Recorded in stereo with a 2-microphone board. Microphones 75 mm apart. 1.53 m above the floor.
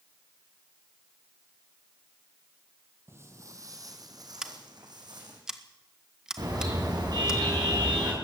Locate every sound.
3.1 s footsteps: 35° right (ahead or behind), 2.5 m; by 5.4 s 70° right (ahead or behind), 5 m
4.4 s scissors: 10° right (ahead or behind), 1.6 m
6.4 s a car horn: 60° right (ahead or behind), 8 m